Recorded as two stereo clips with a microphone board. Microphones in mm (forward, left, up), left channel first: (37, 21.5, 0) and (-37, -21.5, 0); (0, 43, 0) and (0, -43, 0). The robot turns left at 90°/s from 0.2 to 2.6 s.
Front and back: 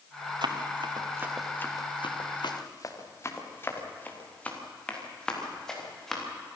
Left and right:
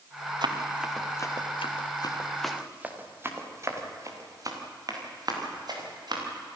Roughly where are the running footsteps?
Behind right.